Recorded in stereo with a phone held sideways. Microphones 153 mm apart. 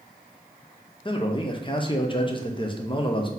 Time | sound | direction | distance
1.1 | a man speaking | 30° left (ahead or behind) | 0.5 m